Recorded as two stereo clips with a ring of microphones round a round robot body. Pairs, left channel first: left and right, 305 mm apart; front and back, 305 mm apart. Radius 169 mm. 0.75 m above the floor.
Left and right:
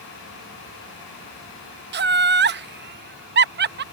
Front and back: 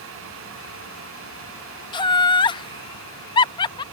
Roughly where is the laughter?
Ahead right.